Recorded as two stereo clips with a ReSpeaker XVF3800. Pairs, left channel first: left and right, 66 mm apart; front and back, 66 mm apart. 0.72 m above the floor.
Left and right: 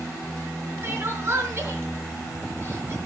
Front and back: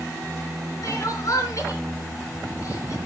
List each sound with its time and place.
0.8 s crying: 35° right, 3.5 m